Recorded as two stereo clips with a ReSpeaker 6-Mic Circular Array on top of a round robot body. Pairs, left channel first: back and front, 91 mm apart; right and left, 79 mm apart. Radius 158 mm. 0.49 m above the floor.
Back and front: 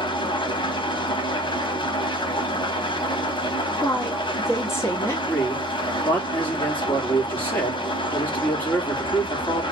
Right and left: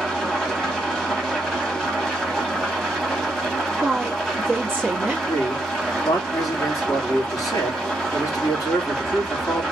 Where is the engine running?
175° right, 1.3 m.